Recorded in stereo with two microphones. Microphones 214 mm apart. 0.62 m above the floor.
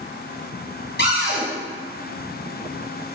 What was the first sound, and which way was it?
A cupboard door, 50° left (ahead or behind).